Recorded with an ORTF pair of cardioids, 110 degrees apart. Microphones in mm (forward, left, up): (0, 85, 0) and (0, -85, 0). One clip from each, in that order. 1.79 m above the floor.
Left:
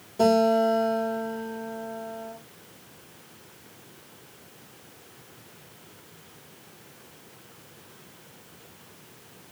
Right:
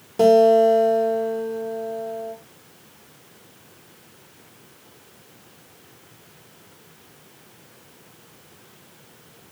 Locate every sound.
0.2 s a guitar: 50° right, 3.5 m